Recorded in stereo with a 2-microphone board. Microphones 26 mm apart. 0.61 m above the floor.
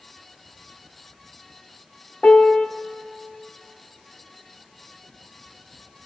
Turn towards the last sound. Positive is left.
turn(degrees=60)  # may be behind; listen again after turning